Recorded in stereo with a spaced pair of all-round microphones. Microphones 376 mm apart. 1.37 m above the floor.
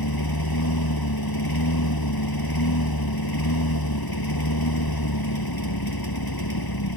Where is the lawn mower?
80° left.